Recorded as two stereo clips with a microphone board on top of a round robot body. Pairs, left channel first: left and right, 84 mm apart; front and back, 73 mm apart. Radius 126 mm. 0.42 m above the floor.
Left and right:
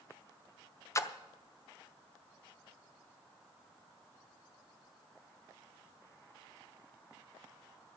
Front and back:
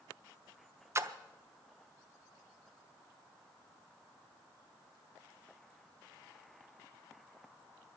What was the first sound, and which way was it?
A splash, 140° left.